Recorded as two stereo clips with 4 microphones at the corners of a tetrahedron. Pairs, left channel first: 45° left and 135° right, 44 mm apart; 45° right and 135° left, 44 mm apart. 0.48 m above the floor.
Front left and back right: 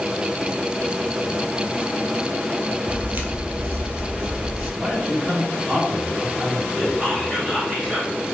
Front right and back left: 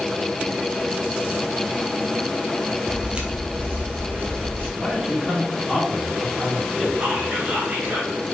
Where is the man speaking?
130° right, 1.0 m.